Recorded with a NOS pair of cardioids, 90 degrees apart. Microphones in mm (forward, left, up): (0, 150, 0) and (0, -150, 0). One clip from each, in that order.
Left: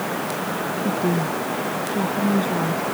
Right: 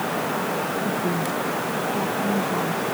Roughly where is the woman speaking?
Ahead left.